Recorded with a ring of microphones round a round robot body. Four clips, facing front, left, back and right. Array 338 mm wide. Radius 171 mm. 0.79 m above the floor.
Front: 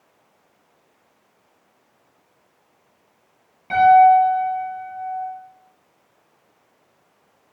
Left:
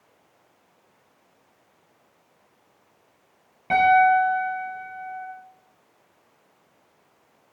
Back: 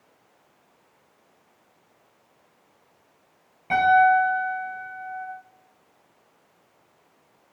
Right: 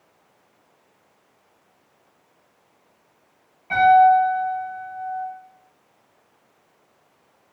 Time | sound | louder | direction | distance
3.7 | a piano | right 4 dB, front 6 dB | 85° left | 7.5 m